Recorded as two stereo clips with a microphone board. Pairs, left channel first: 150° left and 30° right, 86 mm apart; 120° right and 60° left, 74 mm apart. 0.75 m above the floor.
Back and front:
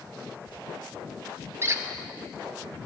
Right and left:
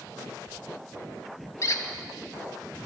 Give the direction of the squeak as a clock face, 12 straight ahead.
3 o'clock.